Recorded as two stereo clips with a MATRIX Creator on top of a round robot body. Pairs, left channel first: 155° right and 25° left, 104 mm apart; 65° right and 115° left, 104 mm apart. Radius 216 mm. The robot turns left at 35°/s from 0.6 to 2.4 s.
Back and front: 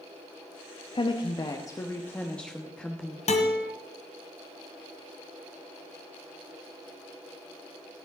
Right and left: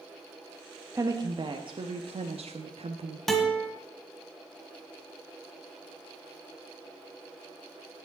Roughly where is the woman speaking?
Behind.